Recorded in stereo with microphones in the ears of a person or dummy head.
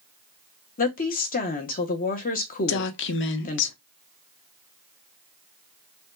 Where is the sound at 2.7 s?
60° left (ahead or behind), 0.8 m.